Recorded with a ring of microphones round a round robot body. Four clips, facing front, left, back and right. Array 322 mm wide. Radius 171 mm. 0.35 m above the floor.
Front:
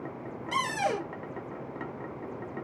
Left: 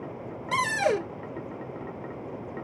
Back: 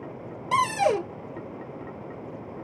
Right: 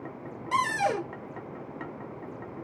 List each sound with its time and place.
0.5 s a cupboard door: 145° left, 1.2 m